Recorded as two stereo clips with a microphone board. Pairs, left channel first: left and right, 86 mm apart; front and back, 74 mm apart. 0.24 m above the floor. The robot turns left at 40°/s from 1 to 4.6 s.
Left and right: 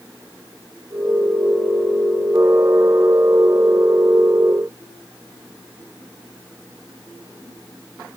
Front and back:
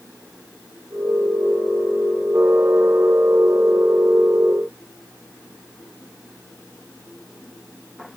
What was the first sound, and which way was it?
Only background noise.